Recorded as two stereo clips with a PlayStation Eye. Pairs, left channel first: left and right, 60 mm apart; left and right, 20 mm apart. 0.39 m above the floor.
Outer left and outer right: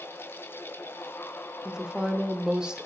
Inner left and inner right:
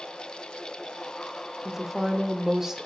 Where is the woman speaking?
15° right (ahead or behind), 0.8 m.